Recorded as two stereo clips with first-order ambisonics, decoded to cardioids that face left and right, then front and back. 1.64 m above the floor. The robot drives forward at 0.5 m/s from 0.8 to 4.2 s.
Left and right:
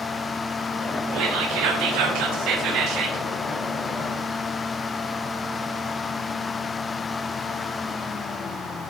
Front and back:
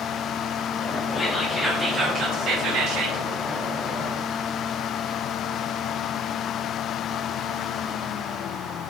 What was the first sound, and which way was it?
Whispering, 75° right.